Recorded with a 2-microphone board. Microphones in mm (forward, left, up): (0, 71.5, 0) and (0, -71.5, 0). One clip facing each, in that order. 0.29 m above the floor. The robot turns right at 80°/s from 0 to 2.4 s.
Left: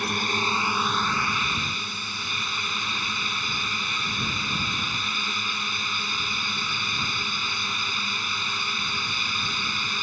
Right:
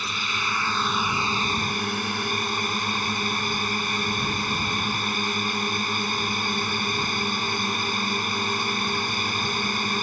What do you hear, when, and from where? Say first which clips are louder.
0.0 s a drone: left 4 dB; 105° left; by 10.0 s 60° right